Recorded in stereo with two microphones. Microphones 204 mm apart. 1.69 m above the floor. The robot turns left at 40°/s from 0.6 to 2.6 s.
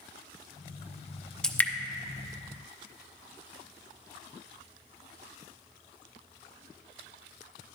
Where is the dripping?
5° left (ahead or behind), 0.5 m; by 1.7 s 10° left (ahead or behind), 0.5 m.